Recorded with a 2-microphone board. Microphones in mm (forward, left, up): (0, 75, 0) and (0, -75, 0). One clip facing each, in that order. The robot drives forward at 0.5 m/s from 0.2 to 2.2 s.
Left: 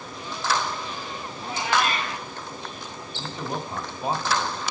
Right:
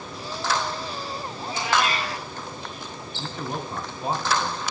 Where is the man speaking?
15° left (ahead or behind), 1.7 m.